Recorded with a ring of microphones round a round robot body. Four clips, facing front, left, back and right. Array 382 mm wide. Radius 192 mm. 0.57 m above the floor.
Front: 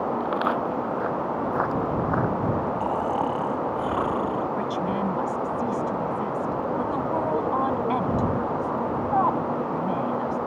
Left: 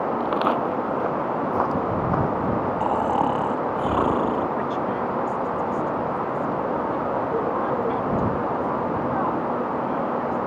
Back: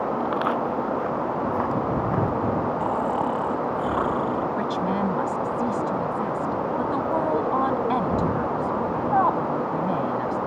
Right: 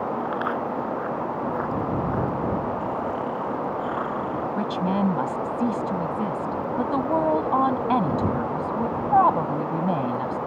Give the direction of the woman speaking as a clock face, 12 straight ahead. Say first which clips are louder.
Even, back 2 dB; 3 o'clock.